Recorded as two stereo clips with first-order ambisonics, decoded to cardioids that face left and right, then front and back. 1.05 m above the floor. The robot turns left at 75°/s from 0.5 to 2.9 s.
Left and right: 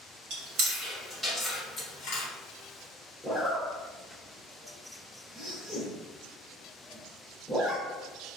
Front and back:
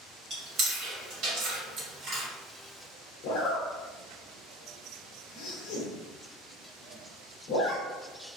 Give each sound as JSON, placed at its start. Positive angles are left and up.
{"t": 0.3, "sound": "chewing", "azimuth_deg": -120, "distance_m": 1.8}
{"t": 3.2, "sound": "a zipper", "azimuth_deg": 5, "distance_m": 1.5}